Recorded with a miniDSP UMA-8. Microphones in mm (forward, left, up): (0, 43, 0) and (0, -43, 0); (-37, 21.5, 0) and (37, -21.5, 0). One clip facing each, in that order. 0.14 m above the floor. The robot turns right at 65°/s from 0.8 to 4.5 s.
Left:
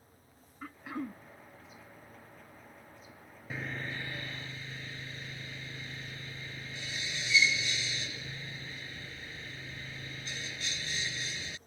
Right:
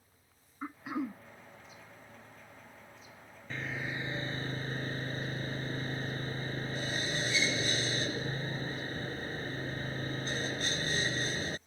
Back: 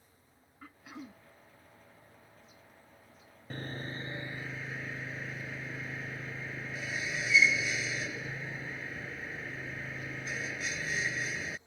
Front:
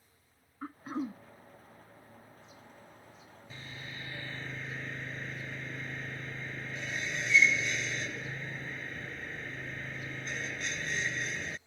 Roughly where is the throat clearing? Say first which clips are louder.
Right 3 dB, front 11 dB; ahead right.